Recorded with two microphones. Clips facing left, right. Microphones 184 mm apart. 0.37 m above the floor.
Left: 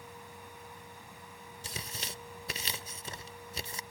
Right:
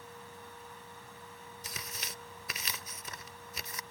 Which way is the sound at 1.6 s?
30° left (ahead or behind).